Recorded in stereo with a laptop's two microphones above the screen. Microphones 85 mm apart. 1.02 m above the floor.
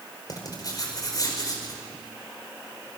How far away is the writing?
About 4.5 m.